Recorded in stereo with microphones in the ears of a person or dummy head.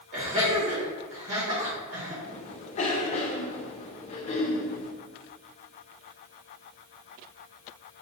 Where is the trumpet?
I don't hear a trumpet.